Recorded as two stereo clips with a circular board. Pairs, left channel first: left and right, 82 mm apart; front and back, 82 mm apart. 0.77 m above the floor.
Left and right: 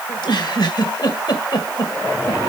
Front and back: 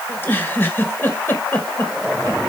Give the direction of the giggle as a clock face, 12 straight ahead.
10 o'clock.